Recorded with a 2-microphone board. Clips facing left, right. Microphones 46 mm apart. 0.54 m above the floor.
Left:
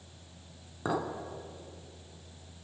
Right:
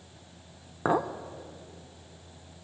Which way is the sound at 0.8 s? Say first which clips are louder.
Right 6 dB; 35° right (ahead or behind).